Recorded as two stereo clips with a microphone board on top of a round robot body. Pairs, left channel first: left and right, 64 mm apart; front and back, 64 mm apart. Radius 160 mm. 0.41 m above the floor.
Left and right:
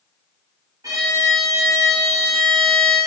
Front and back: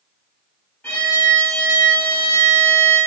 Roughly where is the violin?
Ahead right.